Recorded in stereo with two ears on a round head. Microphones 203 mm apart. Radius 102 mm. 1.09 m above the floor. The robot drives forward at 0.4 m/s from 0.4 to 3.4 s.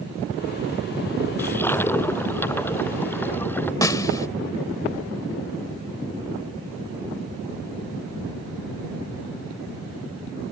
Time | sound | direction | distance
1.4 | a toilet flushing | 10° left (ahead or behind) | ?
3.8 | a snare drum | 15° left (ahead or behind) | ?